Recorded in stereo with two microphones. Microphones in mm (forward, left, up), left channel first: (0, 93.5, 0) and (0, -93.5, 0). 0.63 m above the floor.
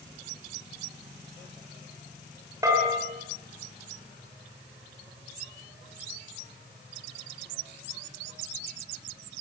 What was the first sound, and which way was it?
A bell, 15° right (ahead or behind).